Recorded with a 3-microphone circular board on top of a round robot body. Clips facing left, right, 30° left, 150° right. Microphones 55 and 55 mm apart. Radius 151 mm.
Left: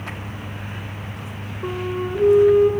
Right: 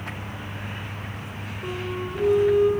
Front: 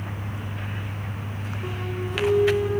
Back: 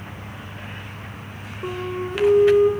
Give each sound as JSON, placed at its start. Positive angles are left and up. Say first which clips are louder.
{"t": 1.6, "sound": "a flute", "louder": "left 5 dB, back 6 dB", "azimuth_deg": 155, "distance_m": 3.0}